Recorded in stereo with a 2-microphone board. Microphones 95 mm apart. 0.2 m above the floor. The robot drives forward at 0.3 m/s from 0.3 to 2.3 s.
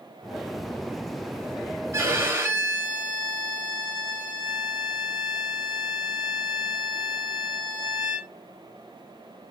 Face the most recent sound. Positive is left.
turn(degrees=-25)  # may be behind; listen again after turning